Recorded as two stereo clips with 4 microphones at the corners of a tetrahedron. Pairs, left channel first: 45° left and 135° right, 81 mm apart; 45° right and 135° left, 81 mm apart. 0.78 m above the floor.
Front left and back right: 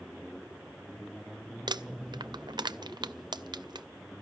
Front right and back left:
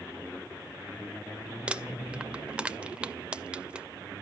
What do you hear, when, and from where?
1.7 s crumpling: 150° right, 0.5 m